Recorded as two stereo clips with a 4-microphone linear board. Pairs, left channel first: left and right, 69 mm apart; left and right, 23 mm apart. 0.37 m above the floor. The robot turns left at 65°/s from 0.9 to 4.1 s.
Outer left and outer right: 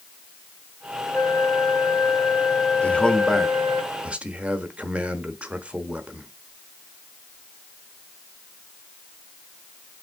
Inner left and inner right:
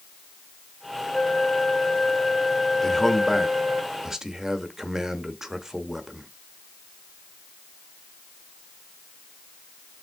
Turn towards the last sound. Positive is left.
turn(degrees=-20)  # may be behind; listen again after turning